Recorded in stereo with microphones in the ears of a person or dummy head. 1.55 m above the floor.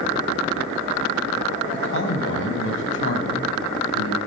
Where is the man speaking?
75° left (ahead or behind), 7.5 m; by 4.2 s 90° left, 10 m.